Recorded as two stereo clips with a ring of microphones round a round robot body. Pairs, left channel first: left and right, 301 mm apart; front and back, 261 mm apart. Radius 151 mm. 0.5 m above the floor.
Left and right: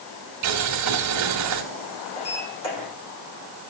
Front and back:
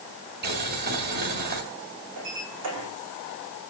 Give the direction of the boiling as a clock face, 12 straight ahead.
4 o'clock.